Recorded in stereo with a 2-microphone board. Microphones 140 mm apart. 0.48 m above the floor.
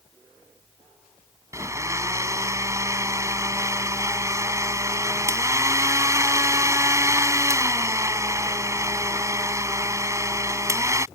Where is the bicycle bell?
No bicycle bell in this recording.